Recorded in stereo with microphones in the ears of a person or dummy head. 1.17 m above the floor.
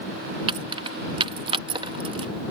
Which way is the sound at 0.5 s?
30° right (ahead or behind).